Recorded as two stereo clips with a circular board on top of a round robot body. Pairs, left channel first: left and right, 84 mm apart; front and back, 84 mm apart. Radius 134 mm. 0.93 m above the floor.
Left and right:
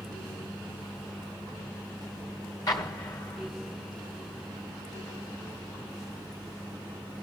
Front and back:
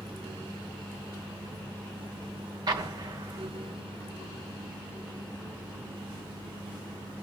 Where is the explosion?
135° left, 1.1 m.